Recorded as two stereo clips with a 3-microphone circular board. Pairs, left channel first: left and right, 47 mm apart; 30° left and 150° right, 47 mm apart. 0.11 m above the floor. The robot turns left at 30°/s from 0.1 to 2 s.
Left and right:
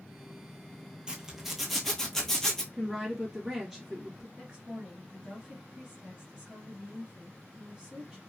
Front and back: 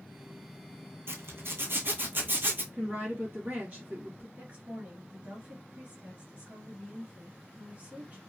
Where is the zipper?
160° right, 0.8 m; by 2.6 s 170° left, 0.8 m.